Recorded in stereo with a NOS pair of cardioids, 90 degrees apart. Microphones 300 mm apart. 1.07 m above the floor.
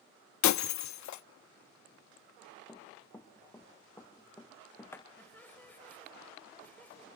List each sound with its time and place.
0.4 s breaking glass: 70° left, 0.9 m
2.7 s running footsteps: 10° left, 5.5 m
5.2 s laughter: 5° left, 6 m